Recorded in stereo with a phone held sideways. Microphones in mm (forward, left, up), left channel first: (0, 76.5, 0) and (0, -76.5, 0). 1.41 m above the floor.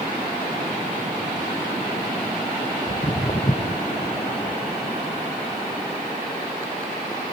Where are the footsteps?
55° left (ahead or behind); by 7.2 s 20° left (ahead or behind).